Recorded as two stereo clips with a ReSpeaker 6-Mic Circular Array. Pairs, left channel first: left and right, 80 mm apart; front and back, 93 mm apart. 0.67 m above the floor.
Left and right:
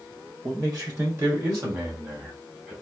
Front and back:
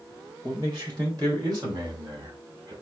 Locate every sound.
0.4 s a man speaking: 130° right, 3 m; by 2.7 s 155° right, 1.8 m